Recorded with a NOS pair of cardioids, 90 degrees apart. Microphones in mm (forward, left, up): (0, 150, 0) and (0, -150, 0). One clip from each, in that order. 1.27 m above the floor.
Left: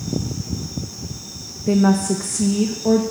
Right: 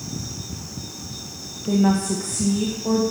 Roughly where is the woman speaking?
Ahead left.